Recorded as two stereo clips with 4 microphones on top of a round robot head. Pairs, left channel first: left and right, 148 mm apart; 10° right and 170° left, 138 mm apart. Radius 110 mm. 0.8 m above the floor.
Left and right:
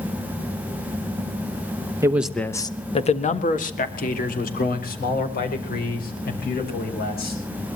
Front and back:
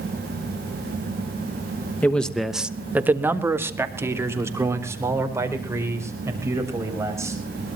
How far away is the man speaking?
About 1.0 m.